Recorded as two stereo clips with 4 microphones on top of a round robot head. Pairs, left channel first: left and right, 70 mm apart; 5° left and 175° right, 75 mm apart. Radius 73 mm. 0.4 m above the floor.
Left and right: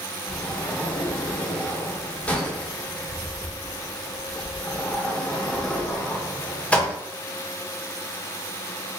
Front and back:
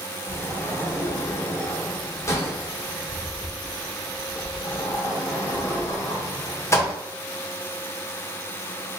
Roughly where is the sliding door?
Ahead left.